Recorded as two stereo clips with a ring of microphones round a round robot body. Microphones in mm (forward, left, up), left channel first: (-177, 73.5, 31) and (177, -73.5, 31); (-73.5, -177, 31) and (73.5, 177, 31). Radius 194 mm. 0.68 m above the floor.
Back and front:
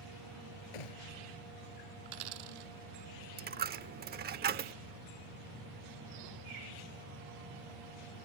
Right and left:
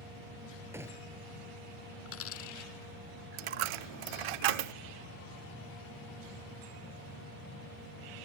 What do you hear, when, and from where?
0.7 s a gunshot: 150° left
2.0 s a dropped coin: 55° right
3.4 s a dropped coin: 45° left